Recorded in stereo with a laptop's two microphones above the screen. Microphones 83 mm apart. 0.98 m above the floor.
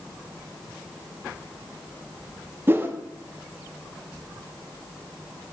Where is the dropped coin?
No dropped coin in this recording.